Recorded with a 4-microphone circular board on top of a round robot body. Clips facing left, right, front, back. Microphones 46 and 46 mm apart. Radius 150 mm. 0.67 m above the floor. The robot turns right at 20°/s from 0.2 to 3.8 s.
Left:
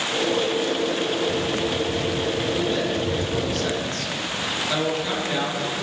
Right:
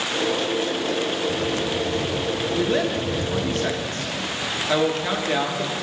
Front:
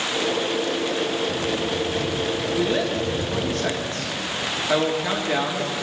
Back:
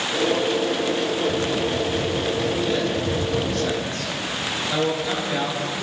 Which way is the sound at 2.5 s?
60° right.